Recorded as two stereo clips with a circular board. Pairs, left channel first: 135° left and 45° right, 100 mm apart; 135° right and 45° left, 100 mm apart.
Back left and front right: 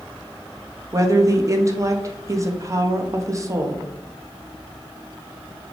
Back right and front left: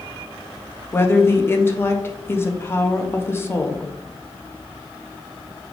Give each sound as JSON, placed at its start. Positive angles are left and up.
{"t": 0.9, "sound": "a woman speaking", "azimuth_deg": -85, "distance_m": 0.5}